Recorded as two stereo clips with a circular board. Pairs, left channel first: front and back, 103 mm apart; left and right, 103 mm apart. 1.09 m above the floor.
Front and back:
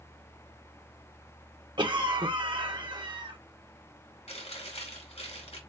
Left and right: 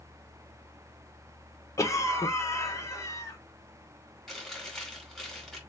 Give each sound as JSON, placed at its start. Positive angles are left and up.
{"t": 1.8, "sound": "a cough", "azimuth_deg": 145, "distance_m": 1.2}
{"t": 4.3, "sound": "chewing", "azimuth_deg": 0, "distance_m": 2.5}